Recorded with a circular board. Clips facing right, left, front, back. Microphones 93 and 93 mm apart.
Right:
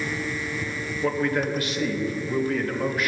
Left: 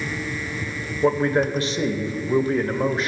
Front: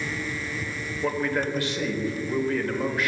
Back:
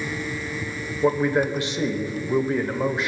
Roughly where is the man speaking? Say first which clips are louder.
Left 5 dB, back 6 dB; behind left.